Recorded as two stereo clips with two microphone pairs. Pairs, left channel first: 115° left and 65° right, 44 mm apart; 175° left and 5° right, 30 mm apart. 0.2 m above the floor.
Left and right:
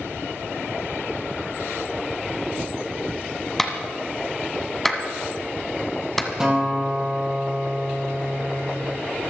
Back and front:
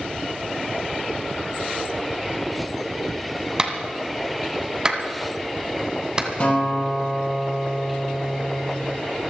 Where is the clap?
40° left, 1.6 m.